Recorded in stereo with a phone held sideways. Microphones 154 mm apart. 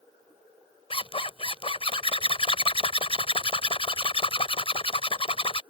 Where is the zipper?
40° left (ahead or behind).